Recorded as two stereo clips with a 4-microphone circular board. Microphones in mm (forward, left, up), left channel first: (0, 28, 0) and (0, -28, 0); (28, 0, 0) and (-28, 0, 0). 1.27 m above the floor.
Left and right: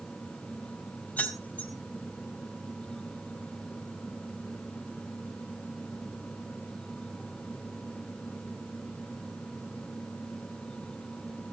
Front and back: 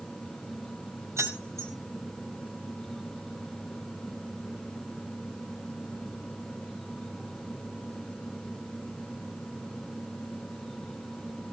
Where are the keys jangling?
150° left, 4.5 m.